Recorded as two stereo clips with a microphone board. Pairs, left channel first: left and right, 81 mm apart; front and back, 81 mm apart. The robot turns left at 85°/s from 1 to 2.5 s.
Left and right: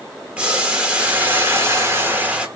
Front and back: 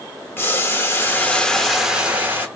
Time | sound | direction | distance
0.4 | boiling | 30° right | 0.8 m